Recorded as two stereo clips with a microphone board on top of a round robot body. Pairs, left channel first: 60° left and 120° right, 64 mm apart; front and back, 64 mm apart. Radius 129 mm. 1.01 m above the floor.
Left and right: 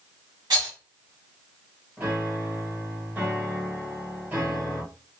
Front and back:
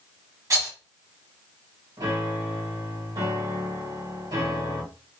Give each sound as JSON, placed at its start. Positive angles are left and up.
{"t": 0.5, "sound": "a rattle", "azimuth_deg": -140, "distance_m": 2.0}
{"t": 2.0, "sound": "a piano", "azimuth_deg": 180, "distance_m": 1.9}